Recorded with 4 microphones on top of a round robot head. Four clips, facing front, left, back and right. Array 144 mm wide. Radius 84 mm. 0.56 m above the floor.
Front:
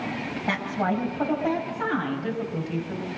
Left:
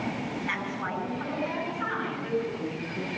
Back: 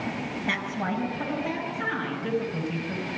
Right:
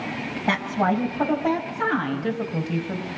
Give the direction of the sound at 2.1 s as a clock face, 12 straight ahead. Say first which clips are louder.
Right 3 dB, even; 3 o'clock.